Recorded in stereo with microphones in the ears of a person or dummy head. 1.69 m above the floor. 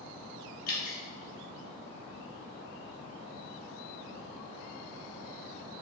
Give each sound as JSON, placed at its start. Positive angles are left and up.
{"t": 0.7, "sound": "dripping", "side_deg": 50, "distance_m": 0.7}